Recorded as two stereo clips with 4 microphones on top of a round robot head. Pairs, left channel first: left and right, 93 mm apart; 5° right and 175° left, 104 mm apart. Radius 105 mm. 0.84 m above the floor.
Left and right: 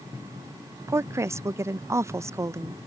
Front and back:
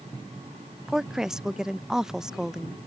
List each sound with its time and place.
0.9 s a woman speaking: 110° right